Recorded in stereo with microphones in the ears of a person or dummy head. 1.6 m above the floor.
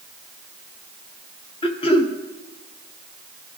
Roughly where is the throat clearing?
Left.